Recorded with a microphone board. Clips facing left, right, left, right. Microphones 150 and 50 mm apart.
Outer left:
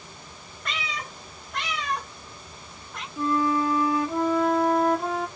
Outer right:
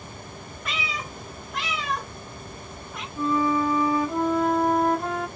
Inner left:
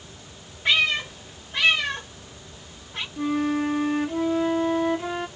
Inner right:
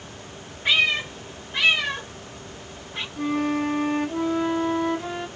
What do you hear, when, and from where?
0.7 s a cat meowing: 5° right (ahead or behind), 0.7 m
3.2 s a flute: centre (ahead or behind), 0.5 m